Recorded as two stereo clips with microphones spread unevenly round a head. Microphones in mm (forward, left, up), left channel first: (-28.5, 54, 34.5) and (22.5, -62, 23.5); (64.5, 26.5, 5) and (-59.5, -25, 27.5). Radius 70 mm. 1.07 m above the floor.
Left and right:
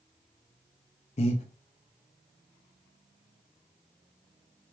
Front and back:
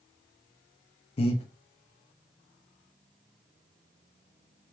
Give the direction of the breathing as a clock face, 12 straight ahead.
10 o'clock.